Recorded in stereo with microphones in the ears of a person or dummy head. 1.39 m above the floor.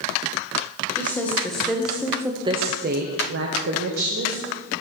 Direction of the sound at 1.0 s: 10° left (ahead or behind).